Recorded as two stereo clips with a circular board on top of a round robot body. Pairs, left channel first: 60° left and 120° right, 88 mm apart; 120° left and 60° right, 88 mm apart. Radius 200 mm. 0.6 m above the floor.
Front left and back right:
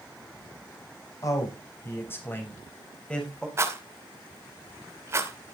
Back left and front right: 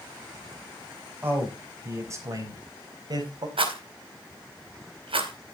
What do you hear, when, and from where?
1.2 s a man speaking: 10° left, 4 m; by 3.5 s 20° right, 4.5 m
3.6 s a rattle: 60° right, 2.5 m